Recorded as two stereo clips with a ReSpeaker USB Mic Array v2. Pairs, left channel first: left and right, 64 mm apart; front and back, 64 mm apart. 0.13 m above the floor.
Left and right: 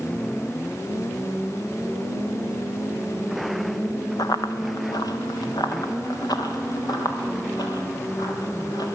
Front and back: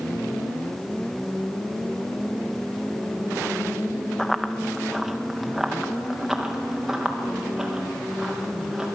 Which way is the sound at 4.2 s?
80° left.